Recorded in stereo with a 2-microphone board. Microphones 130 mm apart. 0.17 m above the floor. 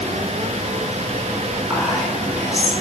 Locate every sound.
1.7 s whispering: 10° right (ahead or behind), 2 m